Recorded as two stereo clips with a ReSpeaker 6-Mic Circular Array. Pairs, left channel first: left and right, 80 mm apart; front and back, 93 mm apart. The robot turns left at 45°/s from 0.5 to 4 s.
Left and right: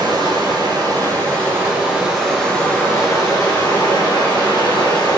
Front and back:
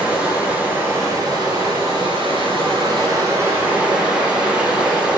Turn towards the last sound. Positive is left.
turn(degrees=100)